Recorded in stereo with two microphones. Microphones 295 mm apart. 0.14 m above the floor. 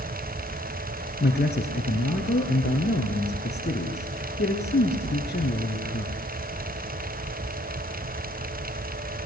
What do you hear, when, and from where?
1.2 s a man speaking: 35° left (ahead or behind), 2 m